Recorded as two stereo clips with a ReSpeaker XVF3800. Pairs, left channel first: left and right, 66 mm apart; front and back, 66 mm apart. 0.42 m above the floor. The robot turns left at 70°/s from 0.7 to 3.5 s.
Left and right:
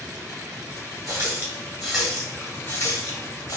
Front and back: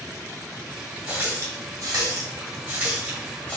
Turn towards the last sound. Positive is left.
turn(degrees=70)